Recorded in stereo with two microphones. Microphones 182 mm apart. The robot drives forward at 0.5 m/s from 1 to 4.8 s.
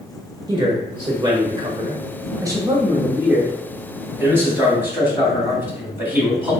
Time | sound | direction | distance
0.5 | a man speaking | 25° right (ahead or behind) | 1.0 m